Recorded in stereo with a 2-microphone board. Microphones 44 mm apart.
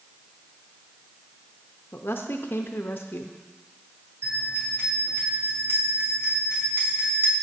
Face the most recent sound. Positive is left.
turn(degrees=-70)  # may be behind; listen again after turning